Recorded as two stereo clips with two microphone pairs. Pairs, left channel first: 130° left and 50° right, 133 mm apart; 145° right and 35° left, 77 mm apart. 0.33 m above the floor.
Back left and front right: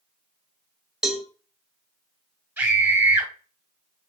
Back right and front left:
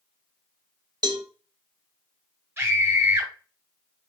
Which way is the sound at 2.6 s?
5° left.